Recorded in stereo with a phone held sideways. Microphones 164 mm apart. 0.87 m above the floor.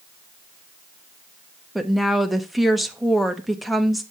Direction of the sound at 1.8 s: Centre (ahead or behind).